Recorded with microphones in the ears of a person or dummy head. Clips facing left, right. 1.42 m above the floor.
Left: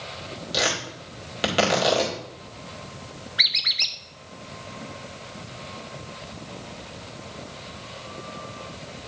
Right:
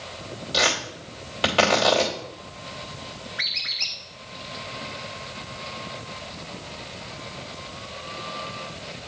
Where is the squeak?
60° left (ahead or behind), 0.8 m.